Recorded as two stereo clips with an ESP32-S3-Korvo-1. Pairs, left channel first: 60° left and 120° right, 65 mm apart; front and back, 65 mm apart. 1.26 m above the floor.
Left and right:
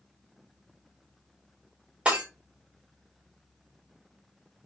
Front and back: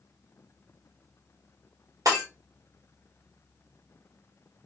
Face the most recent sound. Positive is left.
turn(degrees=170)